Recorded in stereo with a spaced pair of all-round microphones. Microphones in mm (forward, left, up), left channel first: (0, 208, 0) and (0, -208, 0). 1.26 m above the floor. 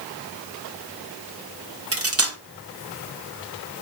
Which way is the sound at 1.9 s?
35° right (ahead or behind).